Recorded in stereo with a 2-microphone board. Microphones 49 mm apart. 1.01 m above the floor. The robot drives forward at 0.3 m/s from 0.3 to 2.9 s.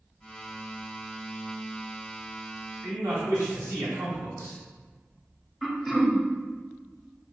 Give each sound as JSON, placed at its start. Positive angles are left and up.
{"t": 2.8, "sound": "a man speaking", "side_deg": -75, "distance_m": 1.9}
{"t": 5.6, "sound": "throat clearing", "side_deg": 0, "distance_m": 0.6}